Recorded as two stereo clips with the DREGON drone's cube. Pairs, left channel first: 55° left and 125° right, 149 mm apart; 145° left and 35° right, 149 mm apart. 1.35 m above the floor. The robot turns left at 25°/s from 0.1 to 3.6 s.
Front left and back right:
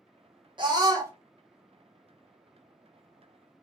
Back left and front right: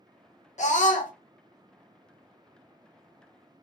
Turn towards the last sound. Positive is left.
turn(degrees=105)